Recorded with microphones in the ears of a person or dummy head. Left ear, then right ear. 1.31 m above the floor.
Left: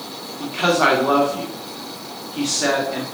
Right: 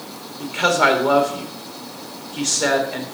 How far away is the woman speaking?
About 1.9 m.